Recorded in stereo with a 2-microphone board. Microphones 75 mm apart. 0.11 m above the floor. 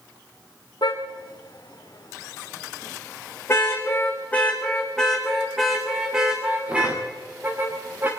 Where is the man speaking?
No man speaking in this recording.